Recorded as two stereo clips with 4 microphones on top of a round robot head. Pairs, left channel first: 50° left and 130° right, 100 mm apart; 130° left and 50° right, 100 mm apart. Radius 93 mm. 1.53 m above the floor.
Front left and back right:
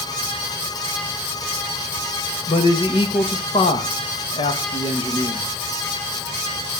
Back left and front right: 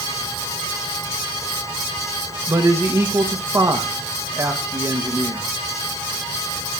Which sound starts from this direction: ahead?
A man speaking, at 2.5 s.